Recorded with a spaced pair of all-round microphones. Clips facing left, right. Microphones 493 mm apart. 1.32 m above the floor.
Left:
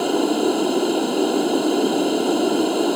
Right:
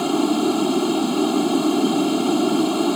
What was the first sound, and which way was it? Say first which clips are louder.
Running water: even; 25° right (ahead or behind).